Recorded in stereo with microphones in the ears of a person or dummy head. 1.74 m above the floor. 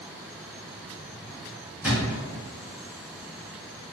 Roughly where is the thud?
Centre.